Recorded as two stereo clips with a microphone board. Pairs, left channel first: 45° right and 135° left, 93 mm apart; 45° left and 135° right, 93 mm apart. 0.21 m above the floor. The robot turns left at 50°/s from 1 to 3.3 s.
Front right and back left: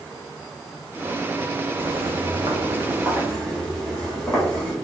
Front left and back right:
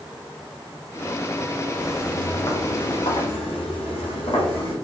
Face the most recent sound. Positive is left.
turn(degrees=30)